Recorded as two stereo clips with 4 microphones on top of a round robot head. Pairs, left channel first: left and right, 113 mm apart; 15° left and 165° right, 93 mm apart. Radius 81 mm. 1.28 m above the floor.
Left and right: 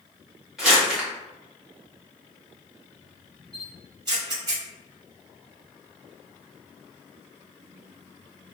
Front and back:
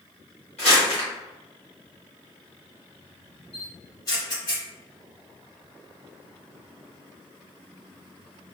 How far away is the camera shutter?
About 1.8 m.